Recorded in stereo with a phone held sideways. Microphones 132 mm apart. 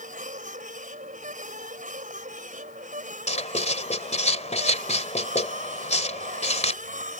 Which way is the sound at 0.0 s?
70° right (ahead or behind).